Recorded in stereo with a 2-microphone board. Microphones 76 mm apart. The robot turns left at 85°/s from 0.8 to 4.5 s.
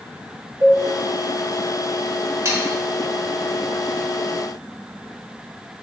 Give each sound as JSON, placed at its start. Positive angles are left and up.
{"t": 0.6, "sound": "a cowbell", "side_deg": 35, "distance_m": 1.1}
{"t": 2.5, "sound": "sawing", "side_deg": -40, "distance_m": 0.9}